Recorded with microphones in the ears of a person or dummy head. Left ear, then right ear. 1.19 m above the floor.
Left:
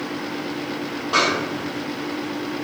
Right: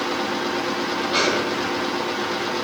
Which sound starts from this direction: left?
A snare drum, at 1.1 s.